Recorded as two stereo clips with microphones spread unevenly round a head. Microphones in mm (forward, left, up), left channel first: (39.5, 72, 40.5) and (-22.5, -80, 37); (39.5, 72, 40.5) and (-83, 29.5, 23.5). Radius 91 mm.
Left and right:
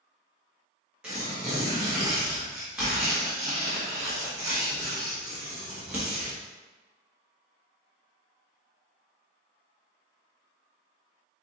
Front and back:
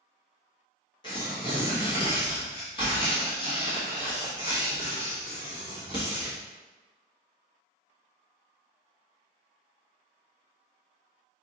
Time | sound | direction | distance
1.0 | tearing paper | 30° right | 1.2 m